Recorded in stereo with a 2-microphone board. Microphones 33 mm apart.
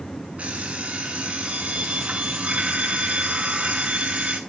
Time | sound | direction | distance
0.4 | an alarm clock | 45° right (ahead or behind) | 7.5 m